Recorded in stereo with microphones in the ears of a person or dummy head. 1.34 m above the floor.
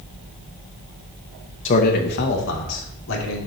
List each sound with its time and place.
1.6 s a man speaking: 40° left (ahead or behind), 1.1 m; by 3.4 s 75° left (ahead or behind), 2.5 m